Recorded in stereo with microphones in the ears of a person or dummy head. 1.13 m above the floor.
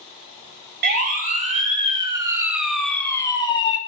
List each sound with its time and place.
0.8 s a siren: 55° right (ahead or behind), 3.5 m; by 3.8 s 35° left (ahead or behind), 3 m